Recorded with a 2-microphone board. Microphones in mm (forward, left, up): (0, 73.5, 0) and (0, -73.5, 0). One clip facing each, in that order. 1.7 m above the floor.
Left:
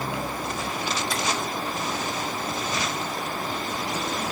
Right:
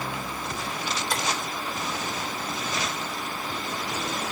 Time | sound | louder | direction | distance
1.1 | tapping | left 1 dB | 60° right (ahead or behind) | 3 m